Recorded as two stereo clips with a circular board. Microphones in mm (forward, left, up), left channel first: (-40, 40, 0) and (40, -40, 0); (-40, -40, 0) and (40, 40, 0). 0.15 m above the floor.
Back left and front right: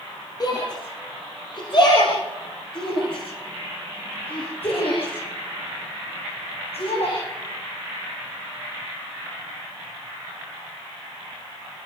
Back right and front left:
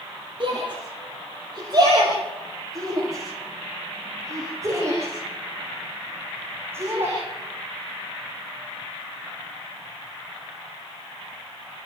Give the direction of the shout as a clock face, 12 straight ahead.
9 o'clock.